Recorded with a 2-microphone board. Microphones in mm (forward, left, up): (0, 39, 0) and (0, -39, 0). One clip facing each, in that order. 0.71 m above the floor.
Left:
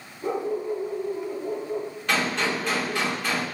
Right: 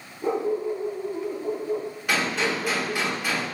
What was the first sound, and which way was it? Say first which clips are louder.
A dog barking: right 2 dB; 70° right (ahead or behind).